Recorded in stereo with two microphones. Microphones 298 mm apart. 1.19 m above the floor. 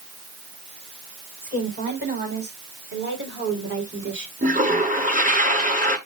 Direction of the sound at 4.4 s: 25° right (ahead or behind).